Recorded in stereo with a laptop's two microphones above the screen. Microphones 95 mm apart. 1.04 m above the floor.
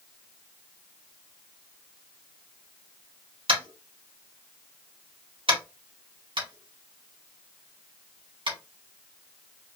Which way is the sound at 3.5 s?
80° right.